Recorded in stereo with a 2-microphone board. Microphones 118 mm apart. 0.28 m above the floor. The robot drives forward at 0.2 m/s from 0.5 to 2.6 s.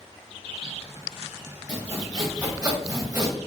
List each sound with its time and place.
1.7 s sawing: 30° right (ahead or behind), 1.6 m; by 3.3 s 35° right (ahead or behind), 1.6 m